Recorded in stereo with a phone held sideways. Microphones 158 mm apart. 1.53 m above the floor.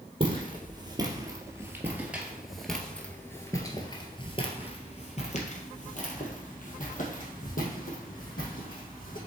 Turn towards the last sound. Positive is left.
turn(degrees=65)  # may be behind; listen again after turning